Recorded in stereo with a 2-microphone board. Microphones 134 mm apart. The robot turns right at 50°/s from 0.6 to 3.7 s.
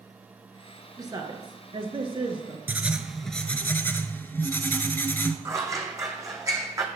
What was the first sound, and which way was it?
A woman speaking, 140° right.